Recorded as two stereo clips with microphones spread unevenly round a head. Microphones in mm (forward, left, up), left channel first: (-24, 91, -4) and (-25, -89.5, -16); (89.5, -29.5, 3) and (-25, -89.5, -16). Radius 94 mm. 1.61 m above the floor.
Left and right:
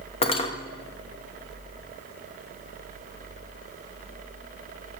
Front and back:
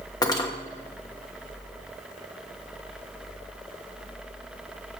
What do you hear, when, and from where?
0.2 s cutlery clinking: 55° left, 1.1 m